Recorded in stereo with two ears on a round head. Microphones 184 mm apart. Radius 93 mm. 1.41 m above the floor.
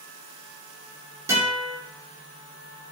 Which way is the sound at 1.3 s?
15° right (ahead or behind).